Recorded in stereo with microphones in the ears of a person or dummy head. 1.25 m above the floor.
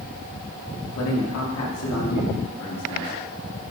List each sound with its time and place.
0.9 s a man speaking: 80° left, 2.5 m; by 3.7 s 70° left (ahead or behind), 2.5 m